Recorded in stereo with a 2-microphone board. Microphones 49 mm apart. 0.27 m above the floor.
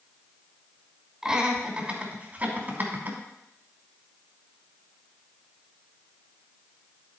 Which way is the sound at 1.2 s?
15° right (ahead or behind).